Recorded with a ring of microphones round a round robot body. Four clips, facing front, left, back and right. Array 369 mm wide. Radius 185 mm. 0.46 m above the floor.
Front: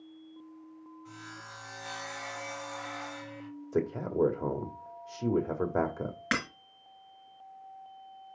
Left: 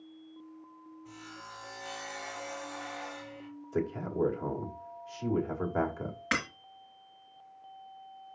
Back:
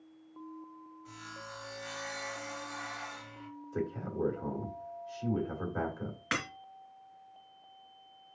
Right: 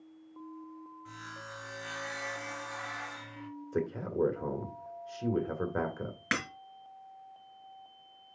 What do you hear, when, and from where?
1.1 s sawing: 85° right, 4 m
3.7 s a man speaking: 15° right, 1.9 m
6.3 s breaking glass: 50° right, 3.5 m